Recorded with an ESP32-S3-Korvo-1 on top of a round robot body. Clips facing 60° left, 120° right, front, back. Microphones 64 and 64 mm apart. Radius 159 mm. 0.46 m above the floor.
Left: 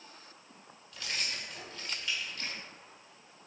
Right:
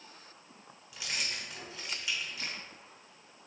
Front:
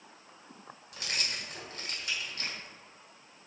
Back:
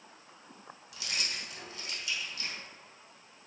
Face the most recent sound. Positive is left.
turn(degrees=-40)